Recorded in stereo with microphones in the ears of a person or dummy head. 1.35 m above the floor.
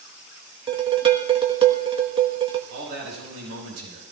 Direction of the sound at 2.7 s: 75° right (ahead or behind).